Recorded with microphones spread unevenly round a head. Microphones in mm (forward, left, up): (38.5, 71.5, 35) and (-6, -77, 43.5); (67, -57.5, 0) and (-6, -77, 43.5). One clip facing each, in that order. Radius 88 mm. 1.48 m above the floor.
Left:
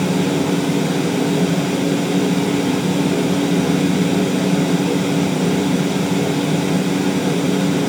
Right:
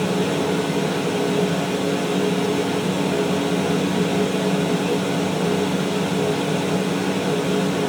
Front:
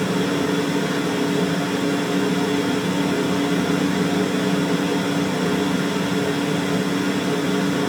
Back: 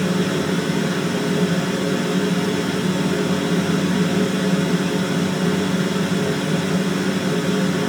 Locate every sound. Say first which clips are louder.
0.0 s a fan: left 3 dB, even; 80° left, 1.0 m